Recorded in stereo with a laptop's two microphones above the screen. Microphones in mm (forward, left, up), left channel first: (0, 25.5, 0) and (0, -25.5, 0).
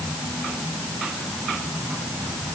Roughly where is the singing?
No singing in this recording.